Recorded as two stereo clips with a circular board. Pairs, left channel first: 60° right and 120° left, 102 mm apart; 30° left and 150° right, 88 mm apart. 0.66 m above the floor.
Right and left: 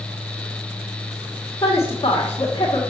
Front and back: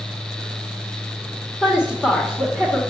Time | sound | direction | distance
1.6 | a woman speaking | 45° right | 1.5 m